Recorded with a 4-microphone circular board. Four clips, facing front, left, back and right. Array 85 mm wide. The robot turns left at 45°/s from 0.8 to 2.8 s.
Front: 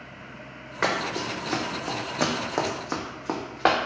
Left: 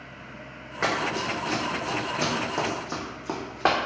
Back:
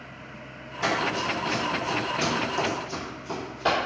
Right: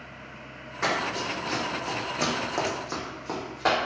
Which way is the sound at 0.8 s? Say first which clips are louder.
Left 1 dB, back 1 dB; 25° left.